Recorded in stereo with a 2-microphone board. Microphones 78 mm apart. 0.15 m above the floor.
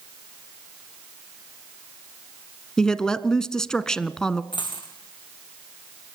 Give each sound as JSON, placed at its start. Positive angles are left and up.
{"t": 2.8, "sound": "a woman speaking", "side_deg": 10, "distance_m": 1.4}
{"t": 4.5, "sound": "a dropped coin", "side_deg": 80, "distance_m": 5.5}